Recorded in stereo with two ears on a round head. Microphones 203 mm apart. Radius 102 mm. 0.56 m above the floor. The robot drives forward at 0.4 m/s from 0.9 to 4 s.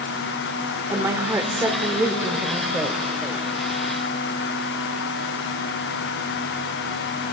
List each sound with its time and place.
0.9 s a woman speaking: 15° right (ahead or behind), 1.4 m; by 3.0 s 10° right (ahead or behind), 2 m